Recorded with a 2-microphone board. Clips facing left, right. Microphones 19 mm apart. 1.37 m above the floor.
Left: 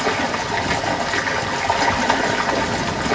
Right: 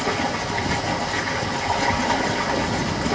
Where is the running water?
45° left (ahead or behind), 0.9 m.